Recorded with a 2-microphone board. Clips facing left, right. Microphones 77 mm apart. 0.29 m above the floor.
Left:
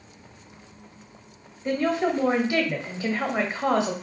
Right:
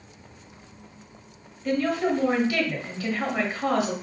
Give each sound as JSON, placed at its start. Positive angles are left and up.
{"t": 1.6, "sound": "a woman speaking", "side_deg": 25, "distance_m": 1.0}